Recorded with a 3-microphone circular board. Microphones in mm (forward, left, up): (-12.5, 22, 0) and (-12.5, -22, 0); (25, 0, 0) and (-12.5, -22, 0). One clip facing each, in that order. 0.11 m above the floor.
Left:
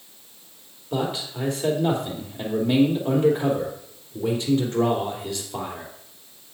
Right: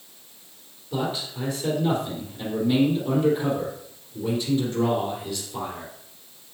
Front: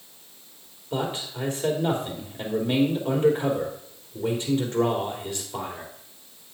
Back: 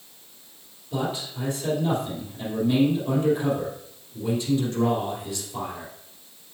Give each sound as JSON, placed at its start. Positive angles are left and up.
{"t": 0.9, "sound": "a man speaking", "azimuth_deg": 70, "distance_m": 3.5}